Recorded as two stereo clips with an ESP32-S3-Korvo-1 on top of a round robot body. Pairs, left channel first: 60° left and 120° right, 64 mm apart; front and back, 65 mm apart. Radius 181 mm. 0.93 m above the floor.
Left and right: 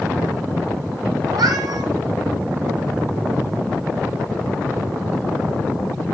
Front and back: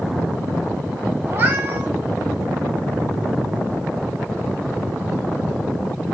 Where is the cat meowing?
140° right, 0.8 m.